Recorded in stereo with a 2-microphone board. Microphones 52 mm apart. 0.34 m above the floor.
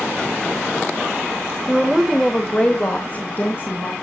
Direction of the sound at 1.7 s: 20° right (ahead or behind).